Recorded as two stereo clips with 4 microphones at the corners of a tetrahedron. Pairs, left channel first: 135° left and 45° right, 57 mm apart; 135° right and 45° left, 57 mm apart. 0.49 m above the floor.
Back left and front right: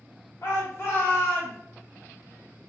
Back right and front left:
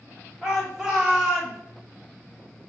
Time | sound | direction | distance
0.4 | a shout | 130° left | 1.6 m